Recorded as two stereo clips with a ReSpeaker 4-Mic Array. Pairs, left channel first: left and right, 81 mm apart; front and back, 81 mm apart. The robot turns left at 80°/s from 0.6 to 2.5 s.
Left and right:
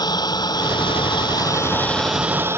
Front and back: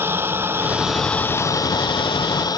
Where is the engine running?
120° left; by 2.6 s 30° right.